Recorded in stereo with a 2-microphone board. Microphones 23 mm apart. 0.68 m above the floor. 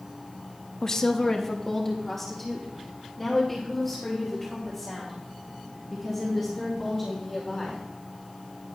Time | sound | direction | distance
0.8 | a woman speaking | 25° left (ahead or behind) | 0.5 m